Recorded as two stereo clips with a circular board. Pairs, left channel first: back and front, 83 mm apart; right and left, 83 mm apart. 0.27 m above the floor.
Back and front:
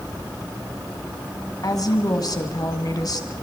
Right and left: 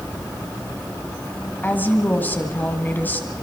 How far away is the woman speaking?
About 2.5 m.